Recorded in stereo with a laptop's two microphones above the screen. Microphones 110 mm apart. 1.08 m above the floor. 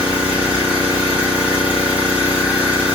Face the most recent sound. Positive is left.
turn(degrees=-15)  # may be behind; listen again after turning